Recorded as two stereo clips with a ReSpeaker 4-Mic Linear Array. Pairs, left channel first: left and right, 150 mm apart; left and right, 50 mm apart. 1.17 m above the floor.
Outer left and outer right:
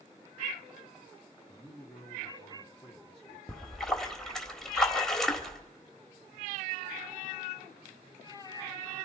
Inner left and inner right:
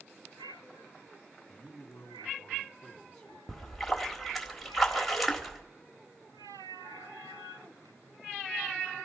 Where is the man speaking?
5° left (ahead or behind), 2.5 m.